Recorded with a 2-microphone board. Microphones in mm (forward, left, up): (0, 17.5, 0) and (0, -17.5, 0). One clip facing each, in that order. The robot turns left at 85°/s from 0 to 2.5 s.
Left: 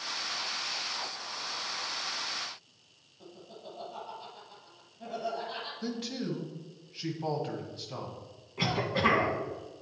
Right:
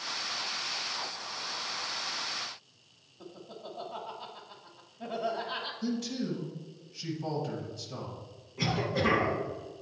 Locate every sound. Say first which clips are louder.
3.2 s laughter: right 3 dB; 25° right (ahead or behind), 1.1 m
5.8 s a man speaking: right 2 dB; 25° left (ahead or behind), 1.3 m
8.6 s a cough: left 1 dB; 35° left (ahead or behind), 2 m